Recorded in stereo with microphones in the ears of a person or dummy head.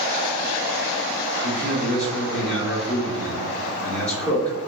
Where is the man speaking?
5° left (ahead or behind), 2 m.